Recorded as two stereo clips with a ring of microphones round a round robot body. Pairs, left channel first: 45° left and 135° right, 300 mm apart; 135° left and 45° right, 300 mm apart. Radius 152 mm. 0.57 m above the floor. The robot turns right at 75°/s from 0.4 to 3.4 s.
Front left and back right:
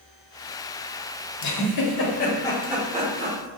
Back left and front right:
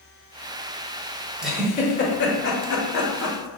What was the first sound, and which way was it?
A giggle, 40° left.